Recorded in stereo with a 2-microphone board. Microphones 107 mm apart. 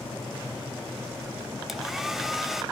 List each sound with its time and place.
1.7 s a hair dryer: centre (ahead or behind), 0.9 m